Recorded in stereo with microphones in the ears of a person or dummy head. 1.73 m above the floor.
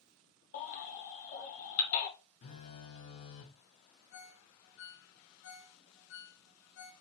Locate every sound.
0.5 s a baby crying: 40° left (ahead or behind), 1.3 m
2.4 s a phone buzzing: 40° left (ahead or behind), 0.7 m
4.1 s a ringtone: 60° left (ahead or behind), 1.3 m